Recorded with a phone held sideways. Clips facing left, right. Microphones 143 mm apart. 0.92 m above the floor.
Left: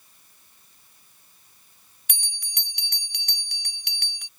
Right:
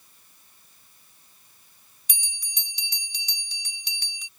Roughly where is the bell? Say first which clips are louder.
Left 2 dB; left.